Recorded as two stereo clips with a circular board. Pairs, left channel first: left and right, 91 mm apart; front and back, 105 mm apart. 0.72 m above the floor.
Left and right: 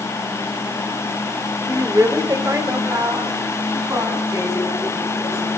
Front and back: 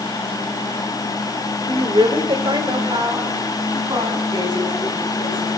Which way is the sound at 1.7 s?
150° right.